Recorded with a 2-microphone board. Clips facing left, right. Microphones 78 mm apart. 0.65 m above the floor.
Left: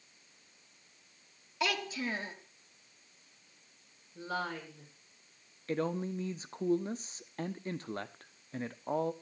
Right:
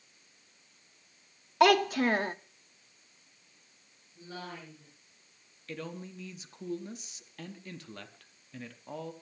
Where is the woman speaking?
85° left, 6.5 m.